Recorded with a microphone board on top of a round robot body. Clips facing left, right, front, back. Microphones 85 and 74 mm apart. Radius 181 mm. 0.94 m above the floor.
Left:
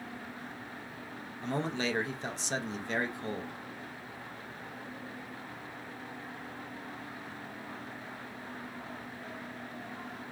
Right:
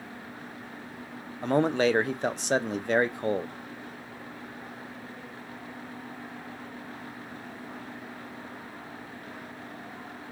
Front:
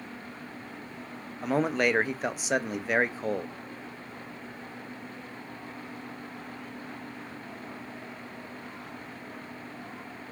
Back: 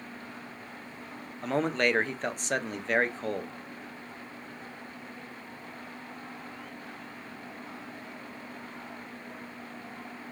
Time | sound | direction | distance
1.4 | a man speaking | 80° right | 0.5 m